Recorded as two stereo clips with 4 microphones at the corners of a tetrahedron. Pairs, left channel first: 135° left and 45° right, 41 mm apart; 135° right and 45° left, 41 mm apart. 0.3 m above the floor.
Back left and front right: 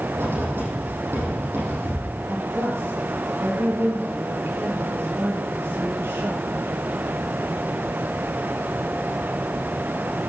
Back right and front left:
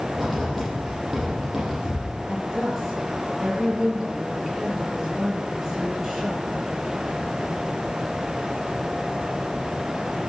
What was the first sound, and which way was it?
Writing, 40° right.